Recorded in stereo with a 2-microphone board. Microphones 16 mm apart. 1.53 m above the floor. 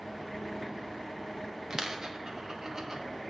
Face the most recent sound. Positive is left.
turn(degrees=-40)  # may be behind; listen again after turning